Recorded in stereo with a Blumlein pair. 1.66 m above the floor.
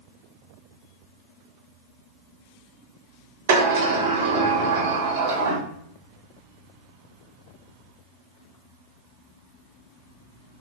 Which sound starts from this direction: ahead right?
A sliding door, at 3.5 s.